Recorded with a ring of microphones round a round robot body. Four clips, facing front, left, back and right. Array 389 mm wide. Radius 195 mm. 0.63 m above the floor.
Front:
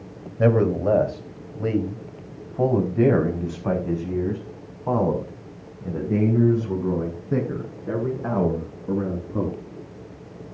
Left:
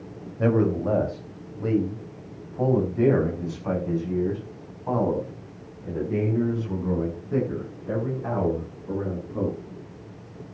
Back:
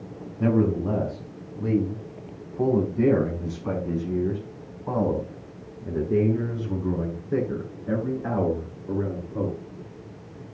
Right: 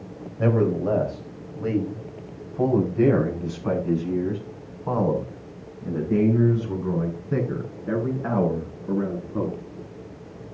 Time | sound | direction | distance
0.4 | a man speaking | straight ahead | 4 m